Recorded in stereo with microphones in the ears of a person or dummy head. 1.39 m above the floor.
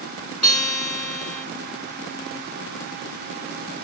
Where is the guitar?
15° left (ahead or behind), 2.5 m.